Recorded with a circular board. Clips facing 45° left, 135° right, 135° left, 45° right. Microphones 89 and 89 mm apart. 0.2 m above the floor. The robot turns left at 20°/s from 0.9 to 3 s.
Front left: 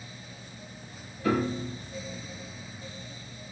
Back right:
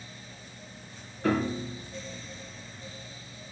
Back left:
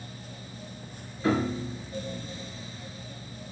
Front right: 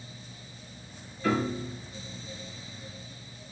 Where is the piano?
155° right, 3.5 m; by 1.8 s 165° right, 3.5 m.